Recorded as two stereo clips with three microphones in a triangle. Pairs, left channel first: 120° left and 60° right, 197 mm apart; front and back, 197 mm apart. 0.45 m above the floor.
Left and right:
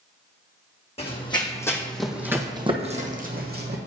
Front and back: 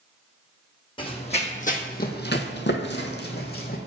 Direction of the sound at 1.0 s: 65° left.